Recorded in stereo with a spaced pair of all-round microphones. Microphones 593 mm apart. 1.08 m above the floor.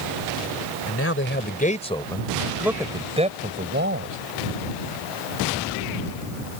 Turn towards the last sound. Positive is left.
turn(degrees=-20)  # may be behind; listen again after turning